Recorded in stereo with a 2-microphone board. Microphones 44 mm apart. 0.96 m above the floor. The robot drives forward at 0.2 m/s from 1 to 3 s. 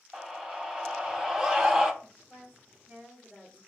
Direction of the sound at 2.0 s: 40° right (ahead or behind).